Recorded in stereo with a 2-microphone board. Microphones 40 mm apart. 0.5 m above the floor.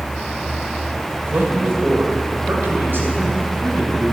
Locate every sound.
1.2 s a man speaking: 60° right (ahead or behind), 2.5 m; by 4.1 s 55° right (ahead or behind), 4 m